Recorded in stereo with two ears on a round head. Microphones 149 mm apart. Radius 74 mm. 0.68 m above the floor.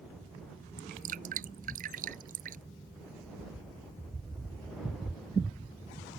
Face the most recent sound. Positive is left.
turn(degrees=-50)  # may be behind; listen again after turning